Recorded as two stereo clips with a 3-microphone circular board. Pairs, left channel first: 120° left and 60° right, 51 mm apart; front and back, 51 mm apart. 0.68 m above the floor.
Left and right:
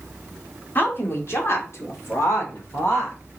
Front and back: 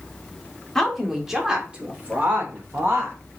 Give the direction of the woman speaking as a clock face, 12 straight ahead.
9 o'clock.